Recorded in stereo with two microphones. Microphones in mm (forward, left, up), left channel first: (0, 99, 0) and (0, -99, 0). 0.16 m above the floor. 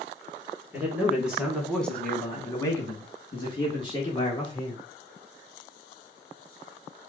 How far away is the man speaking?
About 1.7 m.